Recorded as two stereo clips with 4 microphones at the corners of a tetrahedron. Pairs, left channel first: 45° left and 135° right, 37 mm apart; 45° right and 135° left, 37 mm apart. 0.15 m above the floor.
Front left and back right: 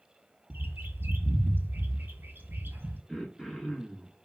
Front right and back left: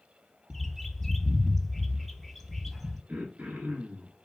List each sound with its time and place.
0.5 s a bird: 130° right, 0.6 m
3.1 s throat clearing: 135° left, 1.2 m